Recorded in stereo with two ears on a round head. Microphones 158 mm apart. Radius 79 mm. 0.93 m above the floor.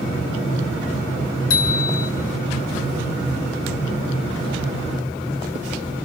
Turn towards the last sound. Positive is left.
turn(degrees=90)